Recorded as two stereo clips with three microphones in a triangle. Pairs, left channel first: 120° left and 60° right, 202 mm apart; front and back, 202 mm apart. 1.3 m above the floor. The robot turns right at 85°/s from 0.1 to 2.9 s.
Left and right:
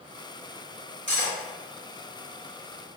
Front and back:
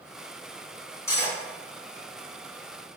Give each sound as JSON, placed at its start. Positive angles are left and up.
{"t": 1.1, "sound": "cutlery clinking", "azimuth_deg": -75, "distance_m": 1.4}